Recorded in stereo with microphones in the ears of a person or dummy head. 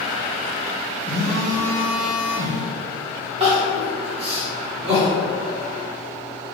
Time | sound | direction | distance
1.1 | a phone buzzing | 20° left (ahead or behind) | 1.2 m
3.4 | crying | 30° right (ahead or behind) | 1.5 m